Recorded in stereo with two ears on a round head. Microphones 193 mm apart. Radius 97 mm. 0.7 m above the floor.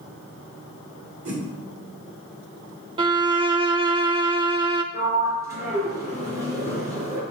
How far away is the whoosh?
About 2 m.